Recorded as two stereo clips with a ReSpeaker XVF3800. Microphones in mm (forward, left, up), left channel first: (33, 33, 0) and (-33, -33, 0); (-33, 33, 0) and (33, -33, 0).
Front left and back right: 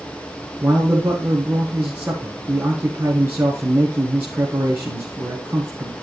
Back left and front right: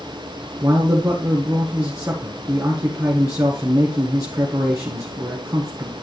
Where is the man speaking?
80° right, 1.5 m.